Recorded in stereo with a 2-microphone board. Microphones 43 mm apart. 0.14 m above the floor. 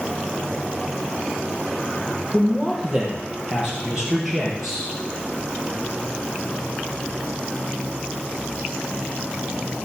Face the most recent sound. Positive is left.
turn(degrees=-5)  # may be behind; listen again after turning